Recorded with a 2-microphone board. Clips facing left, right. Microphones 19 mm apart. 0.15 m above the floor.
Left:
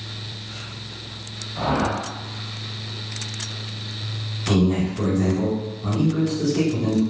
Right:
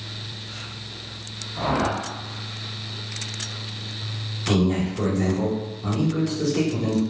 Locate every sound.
1.6 s a whoosh: 30° left (ahead or behind), 1.0 m
4.5 s a man speaking: 10° right (ahead or behind), 1.3 m